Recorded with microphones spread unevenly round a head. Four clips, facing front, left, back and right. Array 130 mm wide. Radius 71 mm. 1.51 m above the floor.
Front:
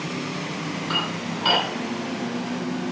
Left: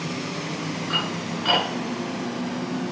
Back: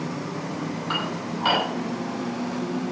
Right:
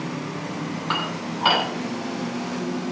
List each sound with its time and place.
0.9 s dishes clattering: 120° right, 9 m